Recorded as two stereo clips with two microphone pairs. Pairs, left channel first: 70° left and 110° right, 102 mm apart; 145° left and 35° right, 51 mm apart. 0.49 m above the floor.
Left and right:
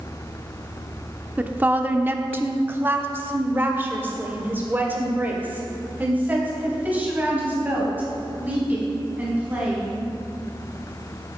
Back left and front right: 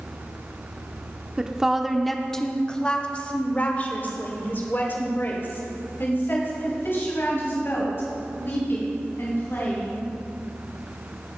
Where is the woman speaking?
70° right, 1.0 m; by 10.1 s 175° left, 4.5 m.